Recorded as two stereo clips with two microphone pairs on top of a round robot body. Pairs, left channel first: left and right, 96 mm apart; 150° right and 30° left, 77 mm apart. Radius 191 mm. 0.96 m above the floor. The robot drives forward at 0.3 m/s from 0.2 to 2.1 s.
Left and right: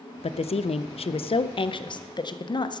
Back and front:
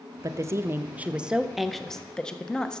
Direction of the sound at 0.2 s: 80° left.